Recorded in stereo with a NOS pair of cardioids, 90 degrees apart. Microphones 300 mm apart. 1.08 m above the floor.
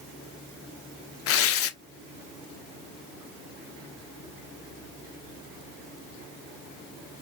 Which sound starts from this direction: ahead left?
Tearing paper, at 1.3 s.